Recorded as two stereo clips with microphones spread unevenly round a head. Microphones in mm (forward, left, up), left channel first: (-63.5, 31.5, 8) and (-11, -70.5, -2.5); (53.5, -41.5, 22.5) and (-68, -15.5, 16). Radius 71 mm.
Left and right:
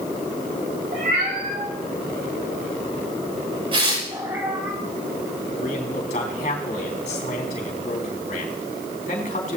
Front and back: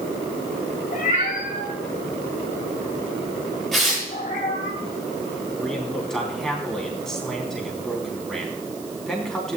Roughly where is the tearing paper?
Right.